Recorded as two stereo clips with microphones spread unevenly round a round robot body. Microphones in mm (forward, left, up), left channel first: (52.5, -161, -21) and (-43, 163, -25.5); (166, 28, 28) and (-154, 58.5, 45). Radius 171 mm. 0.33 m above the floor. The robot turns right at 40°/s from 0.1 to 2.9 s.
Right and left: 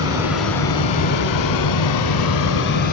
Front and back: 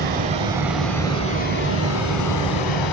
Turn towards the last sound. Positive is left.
turn(degrees=-10)